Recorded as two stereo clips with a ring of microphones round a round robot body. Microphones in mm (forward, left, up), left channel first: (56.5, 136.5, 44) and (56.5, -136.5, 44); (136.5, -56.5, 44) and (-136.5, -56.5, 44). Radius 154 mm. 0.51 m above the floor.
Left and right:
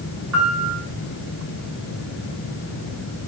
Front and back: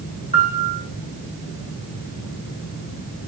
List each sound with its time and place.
0.3 s a piano: 65° right, 7 m